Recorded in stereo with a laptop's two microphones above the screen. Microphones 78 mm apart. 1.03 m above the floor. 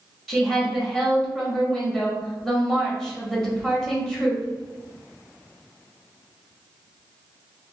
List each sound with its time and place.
0.3 s a woman speaking: 5° left (ahead or behind), 1.2 m